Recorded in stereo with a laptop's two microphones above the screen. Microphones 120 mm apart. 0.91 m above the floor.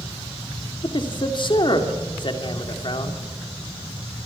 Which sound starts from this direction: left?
A man speaking, at 0.8 s.